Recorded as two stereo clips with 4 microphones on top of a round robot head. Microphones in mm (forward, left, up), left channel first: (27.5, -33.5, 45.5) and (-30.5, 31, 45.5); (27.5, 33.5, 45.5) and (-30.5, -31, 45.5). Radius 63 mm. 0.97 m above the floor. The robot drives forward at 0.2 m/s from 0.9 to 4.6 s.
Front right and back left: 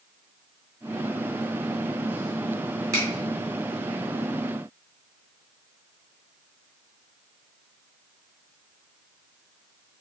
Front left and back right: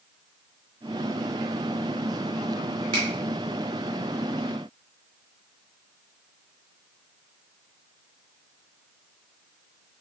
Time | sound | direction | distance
2.9 | a finger snap | 175° right | 2 m